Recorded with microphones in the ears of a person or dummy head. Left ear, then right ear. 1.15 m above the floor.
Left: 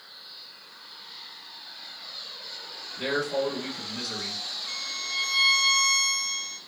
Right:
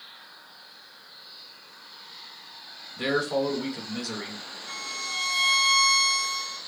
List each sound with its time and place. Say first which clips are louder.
3.0 s a man speaking: right 2 dB; 50° right (ahead or behind), 1.3 m
4.7 s a violin: right 4 dB; 15° right (ahead or behind), 0.9 m